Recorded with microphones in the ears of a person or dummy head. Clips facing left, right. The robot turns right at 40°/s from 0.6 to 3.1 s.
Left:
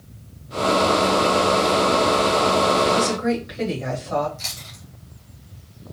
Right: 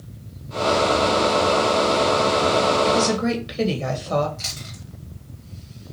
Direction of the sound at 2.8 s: 55° right (ahead or behind).